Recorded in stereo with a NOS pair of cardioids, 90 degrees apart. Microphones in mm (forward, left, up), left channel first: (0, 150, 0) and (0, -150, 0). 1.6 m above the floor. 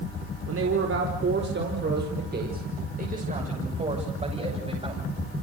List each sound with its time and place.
0.5 s a man speaking: 50° right, 4.5 m; by 5.1 s 15° right, 8 m